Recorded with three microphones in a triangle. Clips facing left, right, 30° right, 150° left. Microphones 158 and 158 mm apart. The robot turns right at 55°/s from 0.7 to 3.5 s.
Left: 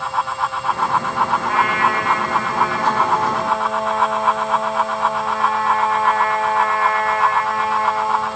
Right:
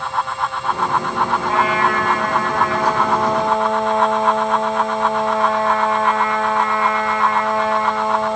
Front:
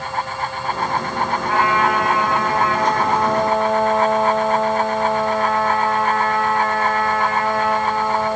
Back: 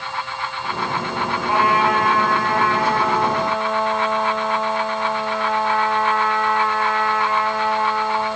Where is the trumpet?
145° right, 2.5 m; by 8.4 s 35° right, 2.5 m.